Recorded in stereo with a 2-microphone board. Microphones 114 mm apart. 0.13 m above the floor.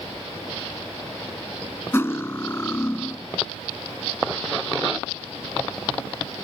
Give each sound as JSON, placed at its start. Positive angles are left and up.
{"t": 1.9, "sound": "cutlery clinking", "side_deg": 25, "distance_m": 0.6}